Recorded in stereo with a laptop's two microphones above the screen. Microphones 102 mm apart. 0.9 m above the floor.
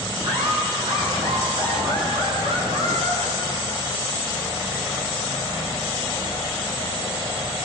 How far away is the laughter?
About 9 m.